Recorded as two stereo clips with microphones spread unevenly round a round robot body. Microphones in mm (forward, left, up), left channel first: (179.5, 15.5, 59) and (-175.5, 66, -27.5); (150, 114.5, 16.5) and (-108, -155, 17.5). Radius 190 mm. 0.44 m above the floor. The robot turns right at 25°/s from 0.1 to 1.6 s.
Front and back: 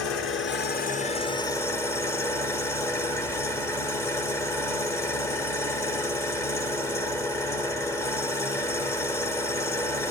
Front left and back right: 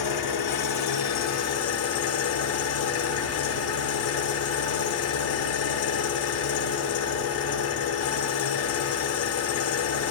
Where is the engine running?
45° left, 0.9 m; by 10.1 s 85° left, 0.9 m.